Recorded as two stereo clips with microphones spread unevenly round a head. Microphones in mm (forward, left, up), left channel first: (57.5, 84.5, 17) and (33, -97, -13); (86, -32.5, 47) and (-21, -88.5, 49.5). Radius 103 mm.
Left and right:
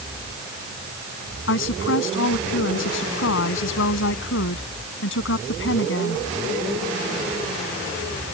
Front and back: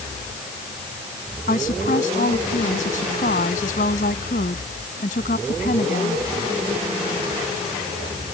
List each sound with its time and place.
1.5 s a woman speaking: 70° left